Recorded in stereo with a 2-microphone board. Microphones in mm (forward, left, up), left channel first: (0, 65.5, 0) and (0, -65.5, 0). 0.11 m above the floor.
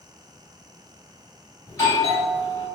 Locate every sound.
1.7 s a doorbell: 25° left (ahead or behind), 1.9 m